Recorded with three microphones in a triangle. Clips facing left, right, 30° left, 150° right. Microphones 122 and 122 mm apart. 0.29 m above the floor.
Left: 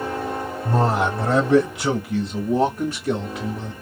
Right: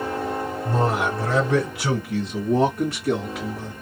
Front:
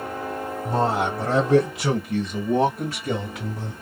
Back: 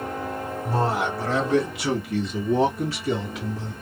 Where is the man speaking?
85° left, 1.2 m; by 3.7 s 5° right, 1.7 m.